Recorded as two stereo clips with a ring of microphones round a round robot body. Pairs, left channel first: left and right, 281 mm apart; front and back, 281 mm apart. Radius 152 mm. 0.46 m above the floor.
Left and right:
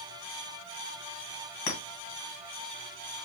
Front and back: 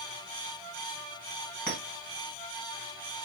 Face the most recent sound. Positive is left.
turn(degrees=85)